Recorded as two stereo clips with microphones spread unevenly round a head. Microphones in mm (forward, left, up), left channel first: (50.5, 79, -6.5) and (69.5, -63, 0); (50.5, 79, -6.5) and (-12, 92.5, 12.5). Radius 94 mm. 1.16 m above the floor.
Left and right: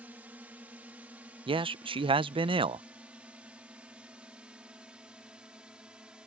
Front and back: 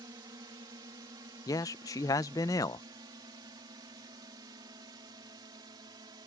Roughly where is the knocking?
I don't hear knocking.